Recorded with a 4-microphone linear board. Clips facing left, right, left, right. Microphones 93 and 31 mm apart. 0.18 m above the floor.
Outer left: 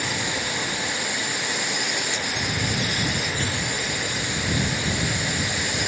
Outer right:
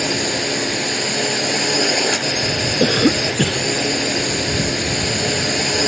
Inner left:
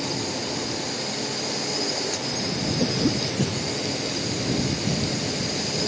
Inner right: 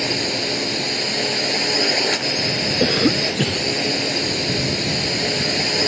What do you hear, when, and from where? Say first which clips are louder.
0.0 s a drone: outer right 7 dB, inner right 6 dB; 65° right (ahead or behind)
2.8 s a cough: outer right 11 dB, inner right 7 dB; 60° right (ahead or behind)